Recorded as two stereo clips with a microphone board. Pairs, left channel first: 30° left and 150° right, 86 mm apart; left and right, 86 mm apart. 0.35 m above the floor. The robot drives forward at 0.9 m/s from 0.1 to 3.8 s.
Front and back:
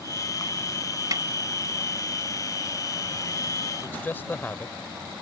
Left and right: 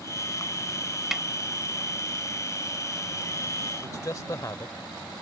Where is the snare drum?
175° right.